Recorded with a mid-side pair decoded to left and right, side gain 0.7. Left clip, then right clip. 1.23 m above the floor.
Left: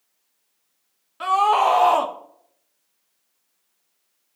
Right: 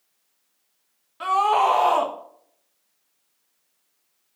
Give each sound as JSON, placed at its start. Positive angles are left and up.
{"t": 1.2, "sound": "a scream", "azimuth_deg": 15, "distance_m": 1.5}